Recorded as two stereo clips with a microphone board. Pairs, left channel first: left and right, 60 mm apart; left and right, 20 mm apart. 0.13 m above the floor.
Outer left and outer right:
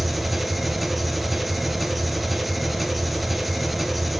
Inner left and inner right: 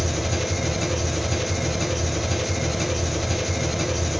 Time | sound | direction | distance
0.0 | an engine running | centre (ahead or behind) | 0.7 m